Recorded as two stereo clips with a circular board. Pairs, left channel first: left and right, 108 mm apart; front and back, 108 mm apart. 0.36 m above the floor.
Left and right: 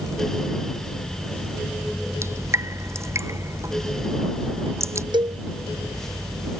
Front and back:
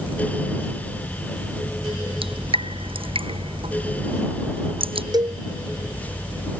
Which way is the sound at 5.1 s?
130° right.